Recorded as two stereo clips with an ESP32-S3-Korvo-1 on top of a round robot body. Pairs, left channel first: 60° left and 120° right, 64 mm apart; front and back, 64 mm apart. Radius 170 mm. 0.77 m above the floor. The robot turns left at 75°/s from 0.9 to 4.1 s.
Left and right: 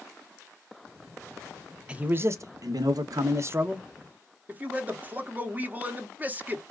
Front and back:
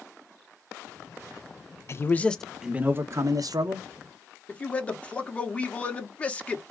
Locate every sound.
1.9 s a man speaking: 45° right, 0.8 m; by 3.9 s 170° left, 0.8 m
4.5 s a man speaking: 65° right, 1.3 m